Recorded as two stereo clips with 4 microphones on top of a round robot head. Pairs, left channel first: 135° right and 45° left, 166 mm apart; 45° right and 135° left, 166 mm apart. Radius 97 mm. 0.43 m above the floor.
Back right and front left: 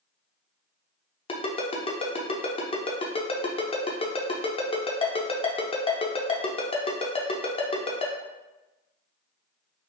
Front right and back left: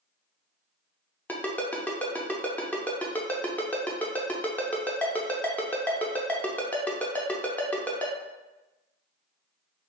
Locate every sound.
1.3 s a ringtone: 120° right, 0.7 m